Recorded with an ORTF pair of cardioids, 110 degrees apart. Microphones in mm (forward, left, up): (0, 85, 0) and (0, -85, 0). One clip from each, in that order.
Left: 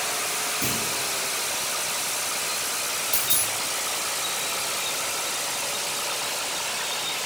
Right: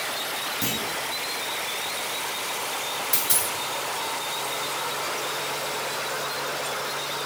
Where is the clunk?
35° right, 3 m.